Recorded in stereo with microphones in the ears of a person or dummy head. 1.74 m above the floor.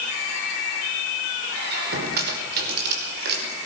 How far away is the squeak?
About 5 m.